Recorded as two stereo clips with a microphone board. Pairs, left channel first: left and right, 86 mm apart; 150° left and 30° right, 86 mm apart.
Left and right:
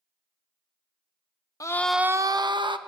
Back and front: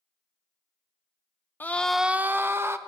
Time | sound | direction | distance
1.6 | a scream | 95° left | 0.6 m